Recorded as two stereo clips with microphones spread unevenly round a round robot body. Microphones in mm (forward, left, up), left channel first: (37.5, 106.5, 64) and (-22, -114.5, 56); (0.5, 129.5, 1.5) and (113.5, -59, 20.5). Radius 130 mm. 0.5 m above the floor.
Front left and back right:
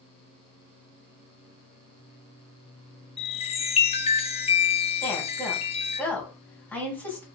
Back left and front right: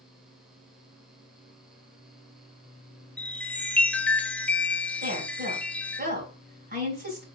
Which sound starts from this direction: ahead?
A woman speaking, at 5.0 s.